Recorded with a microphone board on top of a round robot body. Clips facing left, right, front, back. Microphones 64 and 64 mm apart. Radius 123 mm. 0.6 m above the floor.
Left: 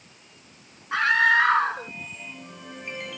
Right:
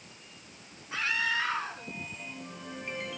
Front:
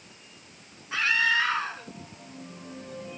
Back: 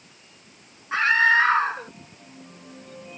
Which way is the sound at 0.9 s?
125° left.